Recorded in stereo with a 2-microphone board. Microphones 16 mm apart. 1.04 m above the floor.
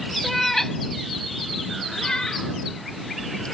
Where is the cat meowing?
10° left (ahead or behind); by 3.5 s 55° left (ahead or behind).